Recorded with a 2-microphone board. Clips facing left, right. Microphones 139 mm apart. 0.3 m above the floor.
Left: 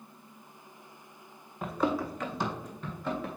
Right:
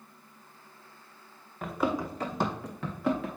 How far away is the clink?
No clink in this recording.